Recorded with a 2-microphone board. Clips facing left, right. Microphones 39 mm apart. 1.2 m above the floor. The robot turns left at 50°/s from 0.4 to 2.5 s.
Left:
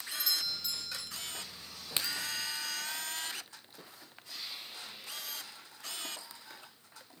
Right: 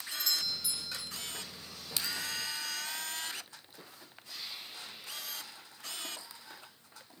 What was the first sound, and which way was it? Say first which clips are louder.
A doorbell: right 1 dB; 5° left.